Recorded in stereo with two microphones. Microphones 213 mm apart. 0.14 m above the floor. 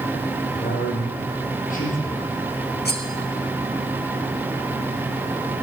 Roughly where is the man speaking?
Left.